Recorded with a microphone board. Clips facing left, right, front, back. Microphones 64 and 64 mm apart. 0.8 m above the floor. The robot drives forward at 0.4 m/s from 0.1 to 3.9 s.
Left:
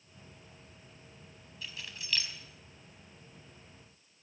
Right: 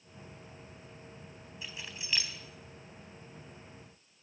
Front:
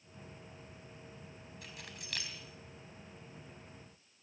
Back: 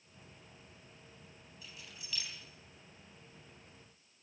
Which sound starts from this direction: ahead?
Keys jangling, at 1.6 s.